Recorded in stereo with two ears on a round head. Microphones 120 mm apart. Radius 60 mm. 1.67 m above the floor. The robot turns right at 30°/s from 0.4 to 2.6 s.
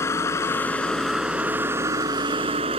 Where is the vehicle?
160° left; by 2.8 s 135° right.